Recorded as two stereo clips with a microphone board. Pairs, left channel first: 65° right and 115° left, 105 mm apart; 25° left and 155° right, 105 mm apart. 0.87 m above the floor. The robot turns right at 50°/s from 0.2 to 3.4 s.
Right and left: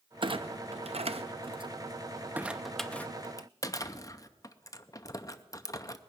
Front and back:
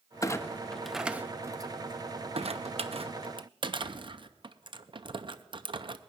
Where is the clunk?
80° left, 0.6 m; by 6.0 s 120° right, 0.6 m.